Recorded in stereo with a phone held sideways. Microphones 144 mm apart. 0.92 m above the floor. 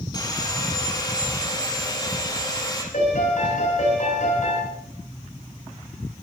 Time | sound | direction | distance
0.1 | sawing | 30° left (ahead or behind) | 6 m
2.9 | a piano | 60° left (ahead or behind) | 9.5 m